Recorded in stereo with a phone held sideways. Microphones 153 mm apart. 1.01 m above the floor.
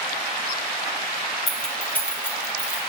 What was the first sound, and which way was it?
Keys jangling, centre (ahead or behind).